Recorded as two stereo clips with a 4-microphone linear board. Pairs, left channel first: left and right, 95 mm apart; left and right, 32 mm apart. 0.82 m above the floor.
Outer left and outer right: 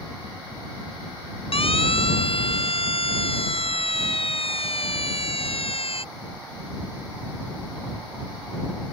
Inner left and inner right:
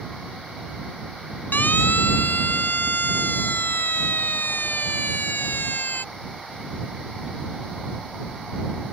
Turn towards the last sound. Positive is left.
turn(degrees=85)